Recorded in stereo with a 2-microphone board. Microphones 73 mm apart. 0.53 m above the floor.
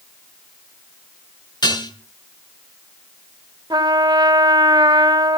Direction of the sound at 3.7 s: 75° right (ahead or behind).